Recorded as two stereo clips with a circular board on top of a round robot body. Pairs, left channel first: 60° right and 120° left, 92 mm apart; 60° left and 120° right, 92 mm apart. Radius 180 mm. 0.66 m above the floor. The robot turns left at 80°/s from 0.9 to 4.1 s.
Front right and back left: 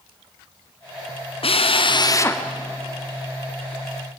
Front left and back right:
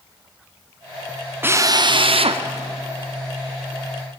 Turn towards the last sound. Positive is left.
turn(degrees=95)